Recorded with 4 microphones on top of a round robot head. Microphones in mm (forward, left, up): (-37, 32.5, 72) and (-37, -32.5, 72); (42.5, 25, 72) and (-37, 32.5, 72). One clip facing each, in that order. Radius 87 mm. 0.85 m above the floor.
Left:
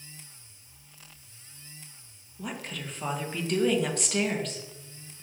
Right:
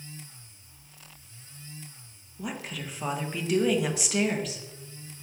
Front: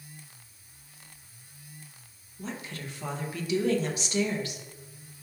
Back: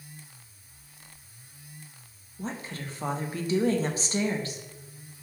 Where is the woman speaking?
175° right, 0.8 m.